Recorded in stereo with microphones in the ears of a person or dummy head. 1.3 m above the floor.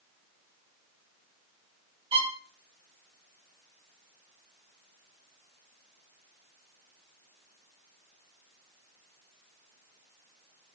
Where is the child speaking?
No child speaking in this recording.